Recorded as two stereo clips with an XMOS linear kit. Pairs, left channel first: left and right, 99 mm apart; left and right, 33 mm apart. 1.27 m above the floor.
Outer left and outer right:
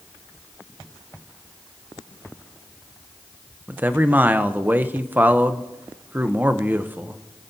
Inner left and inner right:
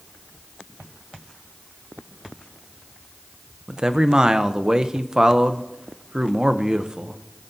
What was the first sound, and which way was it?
A man speaking, 20° right (ahead or behind).